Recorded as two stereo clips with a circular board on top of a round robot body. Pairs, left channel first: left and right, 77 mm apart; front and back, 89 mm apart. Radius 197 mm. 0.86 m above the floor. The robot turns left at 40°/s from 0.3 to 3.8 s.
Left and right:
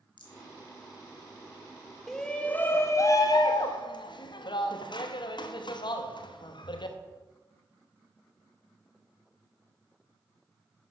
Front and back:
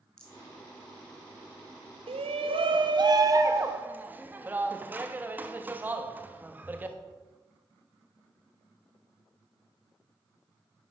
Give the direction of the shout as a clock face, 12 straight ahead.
6 o'clock.